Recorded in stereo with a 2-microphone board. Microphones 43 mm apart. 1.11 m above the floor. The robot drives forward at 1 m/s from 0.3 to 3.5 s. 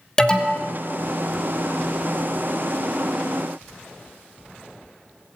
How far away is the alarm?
About 1.6 m.